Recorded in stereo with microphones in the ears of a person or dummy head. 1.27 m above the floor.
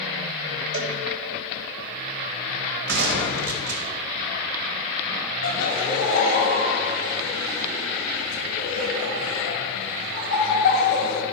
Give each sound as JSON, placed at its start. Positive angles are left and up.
{"t": 0.7, "sound": "a cowbell", "side_deg": -80, "distance_m": 0.9}
{"t": 2.9, "sound": "a gunshot", "side_deg": -60, "distance_m": 1.0}
{"t": 5.4, "sound": "laughter", "side_deg": 50, "distance_m": 2.0}